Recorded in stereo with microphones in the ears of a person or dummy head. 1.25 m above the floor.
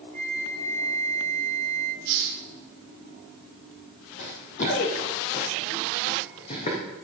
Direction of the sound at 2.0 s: 55° right (ahead or behind).